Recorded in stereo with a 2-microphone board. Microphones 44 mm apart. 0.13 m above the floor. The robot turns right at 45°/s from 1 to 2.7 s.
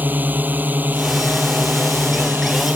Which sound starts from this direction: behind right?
A drone, at 0.0 s.